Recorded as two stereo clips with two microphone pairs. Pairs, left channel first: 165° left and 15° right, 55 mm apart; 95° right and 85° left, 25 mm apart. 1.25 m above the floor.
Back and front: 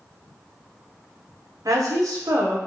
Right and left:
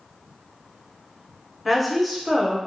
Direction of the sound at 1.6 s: 5° right.